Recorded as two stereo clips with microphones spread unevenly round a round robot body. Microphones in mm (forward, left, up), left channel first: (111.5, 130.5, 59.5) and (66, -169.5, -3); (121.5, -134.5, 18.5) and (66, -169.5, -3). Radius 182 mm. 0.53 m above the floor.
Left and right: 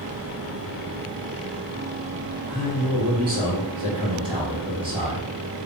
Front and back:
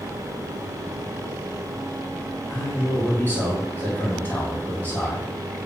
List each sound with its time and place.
2.5 s a man speaking: 40° right, 1.8 m